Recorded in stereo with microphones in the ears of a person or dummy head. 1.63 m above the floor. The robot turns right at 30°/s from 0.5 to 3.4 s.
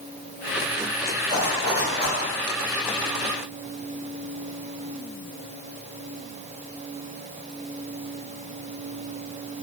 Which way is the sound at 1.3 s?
10° right (ahead or behind).